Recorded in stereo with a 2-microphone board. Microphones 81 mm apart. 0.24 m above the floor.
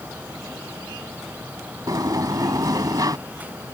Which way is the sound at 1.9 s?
50° right (ahead or behind).